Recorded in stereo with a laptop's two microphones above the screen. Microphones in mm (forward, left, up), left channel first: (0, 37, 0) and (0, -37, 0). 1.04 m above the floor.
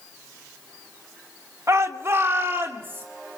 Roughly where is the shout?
Right.